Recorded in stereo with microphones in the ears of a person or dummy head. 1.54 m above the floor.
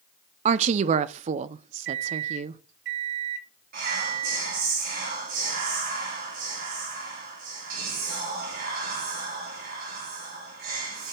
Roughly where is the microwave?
Right.